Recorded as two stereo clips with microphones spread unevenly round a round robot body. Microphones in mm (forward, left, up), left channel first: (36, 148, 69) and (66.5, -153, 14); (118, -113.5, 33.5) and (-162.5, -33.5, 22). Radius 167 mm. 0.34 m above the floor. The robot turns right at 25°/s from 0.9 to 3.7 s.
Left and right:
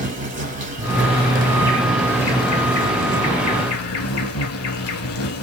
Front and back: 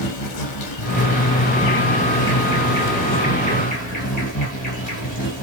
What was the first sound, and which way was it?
An insect, 20° right.